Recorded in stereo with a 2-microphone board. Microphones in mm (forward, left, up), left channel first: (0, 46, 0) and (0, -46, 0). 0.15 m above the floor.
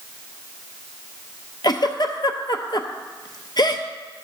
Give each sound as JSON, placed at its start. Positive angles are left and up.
{"t": 1.6, "sound": "a giggle", "side_deg": 55, "distance_m": 0.7}